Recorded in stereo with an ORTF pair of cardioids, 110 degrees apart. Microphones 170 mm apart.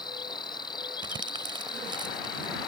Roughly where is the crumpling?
Ahead right.